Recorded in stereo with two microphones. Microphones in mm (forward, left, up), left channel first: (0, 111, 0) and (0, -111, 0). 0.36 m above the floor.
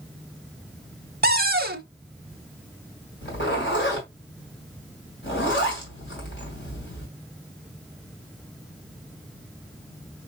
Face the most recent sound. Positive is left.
turn(degrees=55)  # may be behind; listen again after turning